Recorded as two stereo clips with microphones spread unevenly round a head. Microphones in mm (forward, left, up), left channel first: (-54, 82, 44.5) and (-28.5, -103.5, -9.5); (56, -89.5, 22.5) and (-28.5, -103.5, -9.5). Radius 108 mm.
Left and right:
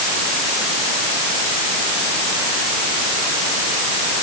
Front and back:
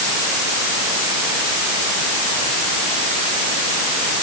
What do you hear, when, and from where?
Only background noise.